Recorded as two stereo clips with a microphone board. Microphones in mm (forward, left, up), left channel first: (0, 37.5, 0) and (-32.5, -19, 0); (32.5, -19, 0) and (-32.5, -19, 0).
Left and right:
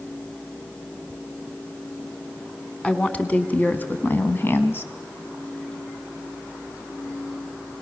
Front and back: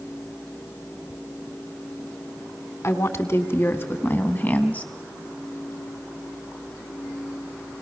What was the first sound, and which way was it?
A woman speaking, 5° right.